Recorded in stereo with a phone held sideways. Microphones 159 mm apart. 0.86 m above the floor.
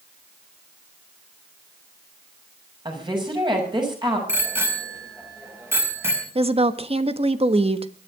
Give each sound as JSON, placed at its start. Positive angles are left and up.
{"t": 2.9, "sound": "a woman speaking", "side_deg": -30, "distance_m": 6.5}
{"t": 4.3, "sound": "a bicycle bell", "side_deg": -15, "distance_m": 4.0}
{"t": 6.3, "sound": "a woman speaking", "side_deg": -40, "distance_m": 1.3}